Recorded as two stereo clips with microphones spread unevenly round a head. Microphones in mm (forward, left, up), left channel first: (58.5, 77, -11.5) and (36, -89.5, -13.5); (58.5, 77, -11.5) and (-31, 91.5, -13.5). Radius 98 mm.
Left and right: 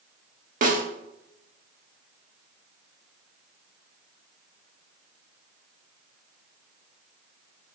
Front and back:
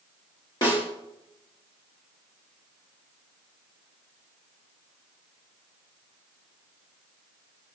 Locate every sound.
0.6 s a snare drum: 60° right, 1.7 m